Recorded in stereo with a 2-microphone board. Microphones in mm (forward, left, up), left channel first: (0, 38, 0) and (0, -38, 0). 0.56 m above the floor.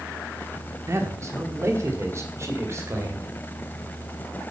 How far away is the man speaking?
About 1.3 m.